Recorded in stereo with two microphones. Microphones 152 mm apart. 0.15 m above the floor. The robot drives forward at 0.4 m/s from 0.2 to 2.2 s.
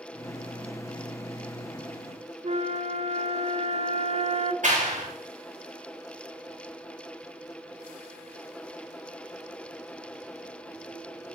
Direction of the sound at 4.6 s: 55° right (ahead or behind).